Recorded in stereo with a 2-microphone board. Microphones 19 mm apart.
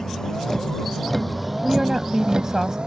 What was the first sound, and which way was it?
A vehicle, 35° left (ahead or behind).